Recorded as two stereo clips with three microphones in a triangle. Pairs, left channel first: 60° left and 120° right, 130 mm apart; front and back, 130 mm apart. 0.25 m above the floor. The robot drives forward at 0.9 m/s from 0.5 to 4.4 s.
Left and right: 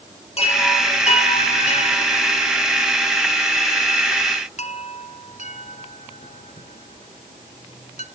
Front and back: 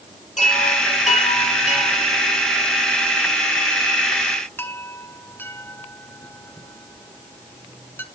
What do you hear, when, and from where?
0.4 s a chime: 20° left, 4.5 m; by 8.1 s 70° left, 1.7 m